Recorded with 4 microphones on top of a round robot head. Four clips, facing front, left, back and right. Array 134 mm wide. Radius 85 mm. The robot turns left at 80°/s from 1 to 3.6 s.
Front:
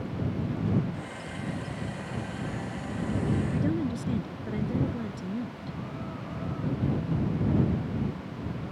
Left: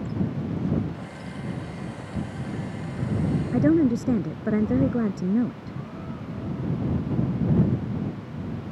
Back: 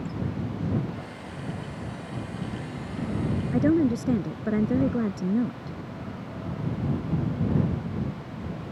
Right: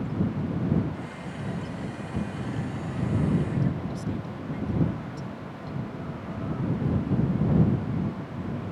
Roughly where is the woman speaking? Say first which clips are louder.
Left 11 dB, back 7 dB; behind left.